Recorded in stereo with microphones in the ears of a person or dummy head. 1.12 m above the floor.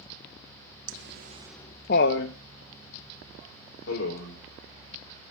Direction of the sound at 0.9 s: 60° right (ahead or behind).